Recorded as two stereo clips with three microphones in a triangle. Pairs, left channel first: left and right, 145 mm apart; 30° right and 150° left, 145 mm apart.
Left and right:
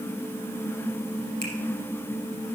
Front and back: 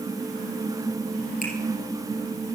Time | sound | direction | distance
1.4 | a finger snap | 45° right | 2.5 m